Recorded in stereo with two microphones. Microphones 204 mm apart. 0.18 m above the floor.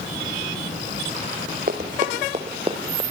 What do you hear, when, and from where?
1.7 s running footsteps: 45° right (ahead or behind), 2 m; by 3.0 s 20° right (ahead or behind), 2.5 m